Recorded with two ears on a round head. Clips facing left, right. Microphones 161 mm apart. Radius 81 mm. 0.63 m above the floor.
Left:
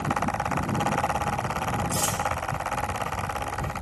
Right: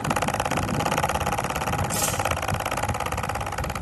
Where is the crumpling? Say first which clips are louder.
Right 1 dB; centre (ahead or behind), 3.5 m.